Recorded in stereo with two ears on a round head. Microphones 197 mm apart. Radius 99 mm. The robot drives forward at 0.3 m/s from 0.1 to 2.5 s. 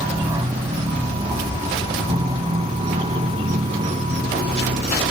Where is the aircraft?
20° right (ahead or behind); by 5.1 s 30° right (ahead or behind).